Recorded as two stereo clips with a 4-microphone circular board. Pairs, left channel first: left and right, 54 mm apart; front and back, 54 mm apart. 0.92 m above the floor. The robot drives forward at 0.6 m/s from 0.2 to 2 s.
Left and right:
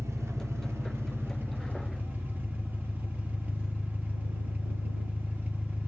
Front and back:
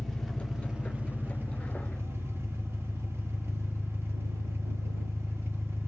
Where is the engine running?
85° right, 0.9 m; by 5.9 s 145° right, 1.3 m.